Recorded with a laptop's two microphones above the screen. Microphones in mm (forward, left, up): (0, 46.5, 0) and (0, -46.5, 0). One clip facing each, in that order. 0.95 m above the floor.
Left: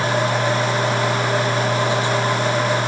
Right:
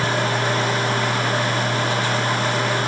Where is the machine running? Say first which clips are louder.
Left 2 dB; 20° left (ahead or behind).